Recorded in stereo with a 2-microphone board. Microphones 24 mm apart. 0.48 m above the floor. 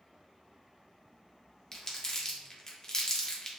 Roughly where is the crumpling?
Left.